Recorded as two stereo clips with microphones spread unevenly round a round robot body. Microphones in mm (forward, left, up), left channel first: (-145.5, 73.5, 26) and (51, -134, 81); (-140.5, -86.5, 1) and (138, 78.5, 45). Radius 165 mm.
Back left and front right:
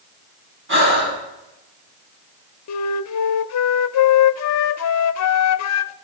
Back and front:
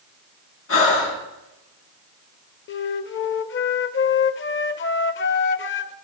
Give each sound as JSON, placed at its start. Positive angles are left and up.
{"t": 0.7, "sound": "breathing", "azimuth_deg": -100, "distance_m": 7.5}
{"t": 2.7, "sound": "a flute", "azimuth_deg": 160, "distance_m": 0.7}